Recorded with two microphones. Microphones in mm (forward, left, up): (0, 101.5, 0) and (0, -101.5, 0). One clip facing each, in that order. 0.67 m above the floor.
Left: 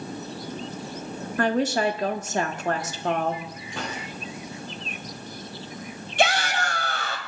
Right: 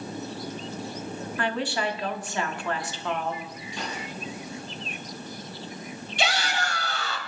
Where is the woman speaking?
45° left (ahead or behind), 1.3 m.